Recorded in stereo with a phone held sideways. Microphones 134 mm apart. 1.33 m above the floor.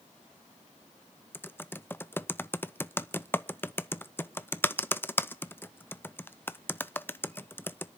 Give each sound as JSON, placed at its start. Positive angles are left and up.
{"t": 1.3, "sound": "typing on a keyboard", "side_deg": 15, "distance_m": 0.5}